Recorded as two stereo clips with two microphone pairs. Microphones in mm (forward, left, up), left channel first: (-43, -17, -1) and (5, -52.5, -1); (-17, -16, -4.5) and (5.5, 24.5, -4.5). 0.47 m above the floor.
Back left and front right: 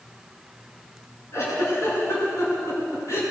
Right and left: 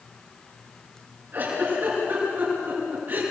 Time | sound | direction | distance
1.3 | a giggle | 110° left | 7 m